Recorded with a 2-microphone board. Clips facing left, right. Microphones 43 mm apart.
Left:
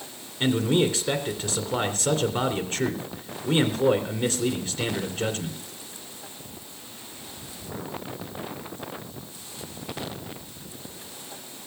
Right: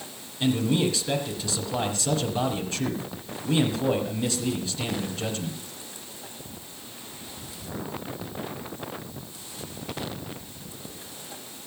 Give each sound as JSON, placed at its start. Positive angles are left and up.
{"t": 0.4, "sound": "a man speaking", "side_deg": 40, "distance_m": 2.5}